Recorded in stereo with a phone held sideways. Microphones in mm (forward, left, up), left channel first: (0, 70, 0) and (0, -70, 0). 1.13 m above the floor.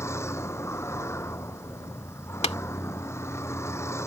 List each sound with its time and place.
0.0 s a vehicle: 20° left (ahead or behind)
2.4 s tapping: 50° left (ahead or behind)